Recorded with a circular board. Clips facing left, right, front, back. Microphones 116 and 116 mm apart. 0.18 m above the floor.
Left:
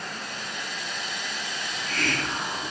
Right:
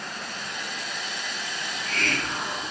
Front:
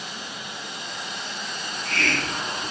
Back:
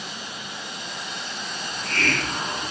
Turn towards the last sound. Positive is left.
turn(degrees=170)